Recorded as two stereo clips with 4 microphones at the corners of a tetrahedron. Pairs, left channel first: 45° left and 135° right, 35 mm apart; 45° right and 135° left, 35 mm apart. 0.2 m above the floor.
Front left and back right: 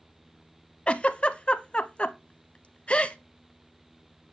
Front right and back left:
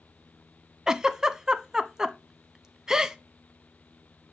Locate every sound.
0.9 s a giggle: 80° left, 0.5 m